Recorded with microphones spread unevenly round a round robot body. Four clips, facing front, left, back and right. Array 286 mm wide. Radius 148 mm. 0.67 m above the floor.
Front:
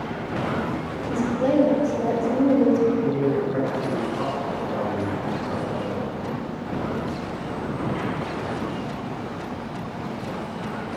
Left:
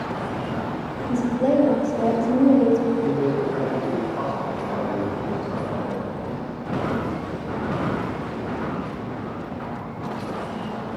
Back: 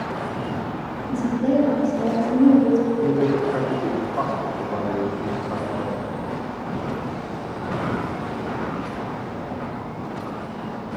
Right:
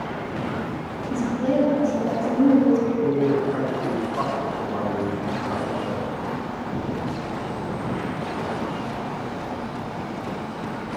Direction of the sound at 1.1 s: 75° left.